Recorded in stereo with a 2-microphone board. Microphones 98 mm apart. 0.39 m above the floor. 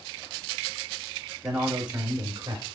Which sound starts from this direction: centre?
A man speaking, at 1.4 s.